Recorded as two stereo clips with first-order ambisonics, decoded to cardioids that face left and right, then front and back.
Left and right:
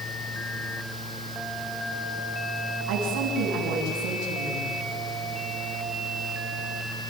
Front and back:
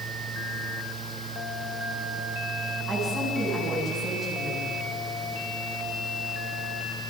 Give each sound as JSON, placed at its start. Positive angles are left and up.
{"t": 2.9, "sound": "a woman speaking", "azimuth_deg": -115, "distance_m": 7.0}